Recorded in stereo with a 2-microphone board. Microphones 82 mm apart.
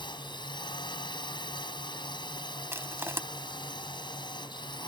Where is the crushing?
30° right (ahead or behind).